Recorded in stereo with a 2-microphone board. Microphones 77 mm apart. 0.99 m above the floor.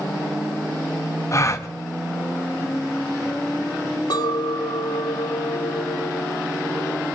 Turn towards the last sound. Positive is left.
turn(degrees=65)  # may be behind; listen again after turning